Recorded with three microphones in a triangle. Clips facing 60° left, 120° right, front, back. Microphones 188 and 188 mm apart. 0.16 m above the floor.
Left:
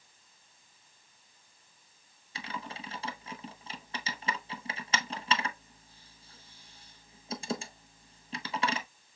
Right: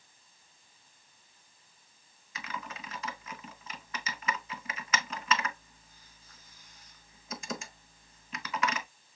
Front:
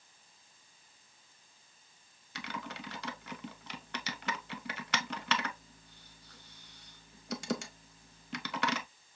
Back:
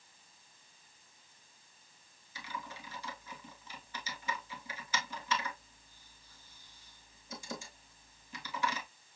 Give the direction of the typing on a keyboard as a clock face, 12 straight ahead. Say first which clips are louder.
Left 1 dB, front 3 dB; 12 o'clock.